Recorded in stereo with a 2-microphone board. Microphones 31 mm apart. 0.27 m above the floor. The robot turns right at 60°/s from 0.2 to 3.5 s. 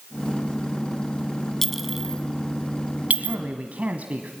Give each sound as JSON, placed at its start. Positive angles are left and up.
{"t": 1.6, "sound": "a clink", "side_deg": 10, "distance_m": 1.4}
{"t": 3.2, "sound": "a man speaking", "side_deg": -45, "distance_m": 1.5}